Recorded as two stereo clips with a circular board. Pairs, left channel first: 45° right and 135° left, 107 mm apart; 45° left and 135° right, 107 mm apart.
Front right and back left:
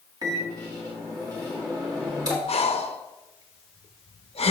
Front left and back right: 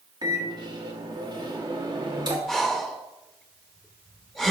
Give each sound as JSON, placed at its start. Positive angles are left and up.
{"t": 0.2, "sound": "a microwave", "azimuth_deg": 180, "distance_m": 1.7}
{"t": 2.5, "sound": "breathing", "azimuth_deg": -45, "distance_m": 0.6}